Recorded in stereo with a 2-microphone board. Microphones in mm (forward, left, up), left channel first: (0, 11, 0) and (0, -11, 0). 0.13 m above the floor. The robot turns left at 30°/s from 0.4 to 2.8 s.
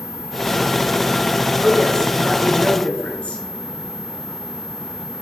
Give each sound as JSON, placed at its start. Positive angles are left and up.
{"t": 1.6, "sound": "a woman speaking", "azimuth_deg": 130, "distance_m": 1.5}